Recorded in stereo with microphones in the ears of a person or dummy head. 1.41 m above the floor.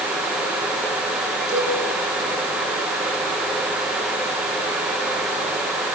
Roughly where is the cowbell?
Right.